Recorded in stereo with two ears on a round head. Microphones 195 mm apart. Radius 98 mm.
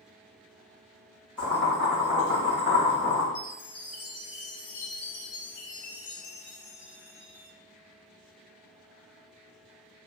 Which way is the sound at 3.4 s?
80° left.